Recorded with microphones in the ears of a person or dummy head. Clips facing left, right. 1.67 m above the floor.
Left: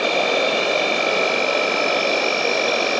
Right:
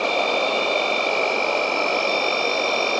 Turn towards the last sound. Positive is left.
turn(degrees=20)  # may be behind; listen again after turning